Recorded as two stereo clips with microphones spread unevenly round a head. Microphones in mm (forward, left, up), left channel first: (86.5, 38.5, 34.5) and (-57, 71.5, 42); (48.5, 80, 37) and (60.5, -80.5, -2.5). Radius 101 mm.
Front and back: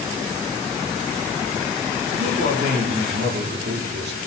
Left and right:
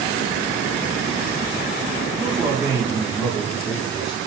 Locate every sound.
2.1 s a man speaking: 165° right, 5.5 m; by 4.2 s straight behind, 5 m